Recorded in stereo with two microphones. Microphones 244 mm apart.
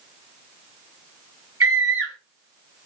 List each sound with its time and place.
1.6 s a scream: 65° right (ahead or behind), 2 m